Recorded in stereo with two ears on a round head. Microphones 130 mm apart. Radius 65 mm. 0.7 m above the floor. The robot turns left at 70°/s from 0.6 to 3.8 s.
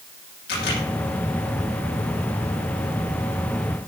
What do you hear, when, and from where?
0.5 s a camera shutter: 80° left, 8 m; by 0.8 s 65° left (ahead or behind), 8 m